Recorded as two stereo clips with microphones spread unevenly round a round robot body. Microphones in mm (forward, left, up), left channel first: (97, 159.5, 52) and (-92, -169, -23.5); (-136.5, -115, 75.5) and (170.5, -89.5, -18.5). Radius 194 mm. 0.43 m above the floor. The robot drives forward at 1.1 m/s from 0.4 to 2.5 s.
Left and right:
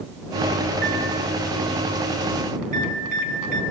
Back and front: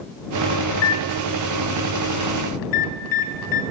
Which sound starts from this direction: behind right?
A microwave, at 0.7 s.